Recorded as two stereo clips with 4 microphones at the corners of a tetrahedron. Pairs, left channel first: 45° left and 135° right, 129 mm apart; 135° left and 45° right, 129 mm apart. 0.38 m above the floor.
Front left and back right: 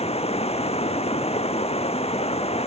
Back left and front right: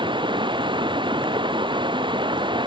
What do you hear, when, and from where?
0.0 s running water: 5° left